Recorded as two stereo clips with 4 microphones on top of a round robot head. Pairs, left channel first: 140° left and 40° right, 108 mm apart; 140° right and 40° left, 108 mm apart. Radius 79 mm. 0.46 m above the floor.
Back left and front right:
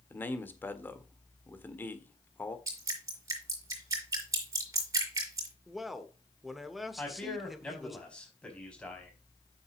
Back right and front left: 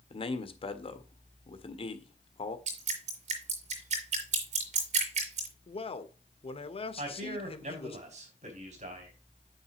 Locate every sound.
0.1 s a man speaking: 150° right, 1.6 m
2.7 s dripping: 20° left, 5.5 m
5.7 s a man speaking: 130° right, 1.4 m
7.0 s a man speaking: 60° left, 4.5 m